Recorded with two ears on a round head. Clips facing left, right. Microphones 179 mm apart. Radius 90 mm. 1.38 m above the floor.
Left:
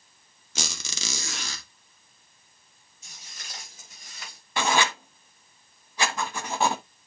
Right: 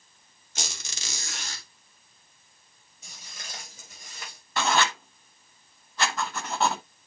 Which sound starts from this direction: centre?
Writing, at 4.6 s.